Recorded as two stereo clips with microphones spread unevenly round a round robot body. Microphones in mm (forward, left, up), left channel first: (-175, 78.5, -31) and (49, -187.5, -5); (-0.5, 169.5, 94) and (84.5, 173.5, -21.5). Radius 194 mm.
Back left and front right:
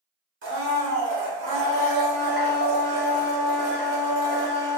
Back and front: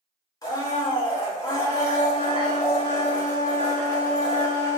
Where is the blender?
20° right, 1.1 m.